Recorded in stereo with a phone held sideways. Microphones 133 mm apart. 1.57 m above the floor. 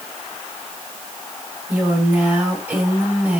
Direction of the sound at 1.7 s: 15° right (ahead or behind).